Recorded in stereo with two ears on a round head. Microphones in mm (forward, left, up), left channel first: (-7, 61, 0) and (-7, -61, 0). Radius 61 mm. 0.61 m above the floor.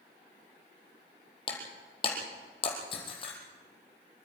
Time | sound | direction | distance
1.5 | breaking glass | 40° left (ahead or behind) | 4.5 m